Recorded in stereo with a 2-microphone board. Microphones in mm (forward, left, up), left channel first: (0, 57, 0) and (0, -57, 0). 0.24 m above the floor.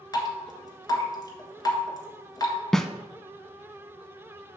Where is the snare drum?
5° left (ahead or behind), 0.5 m.